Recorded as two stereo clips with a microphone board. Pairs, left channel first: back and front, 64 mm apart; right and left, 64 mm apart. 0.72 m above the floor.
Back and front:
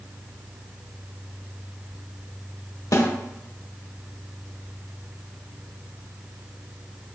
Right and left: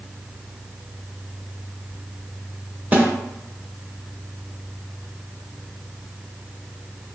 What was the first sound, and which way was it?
A snare drum, 150° left.